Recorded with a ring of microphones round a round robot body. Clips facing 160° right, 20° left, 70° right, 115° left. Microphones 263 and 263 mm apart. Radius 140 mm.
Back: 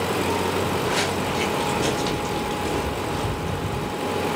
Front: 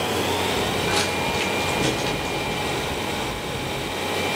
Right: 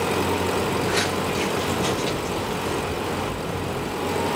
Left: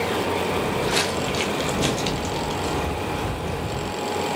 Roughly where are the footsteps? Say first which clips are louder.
Back 1 dB, even; ahead left.